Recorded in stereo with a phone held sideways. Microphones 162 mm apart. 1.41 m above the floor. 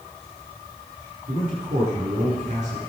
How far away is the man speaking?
About 4.5 m.